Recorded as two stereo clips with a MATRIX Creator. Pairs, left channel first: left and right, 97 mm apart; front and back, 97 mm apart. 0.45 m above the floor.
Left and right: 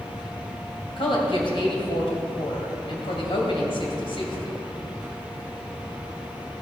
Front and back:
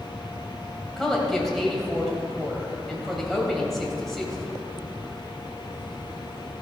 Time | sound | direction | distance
1.0 | a woman speaking | 85° left | 2.5 m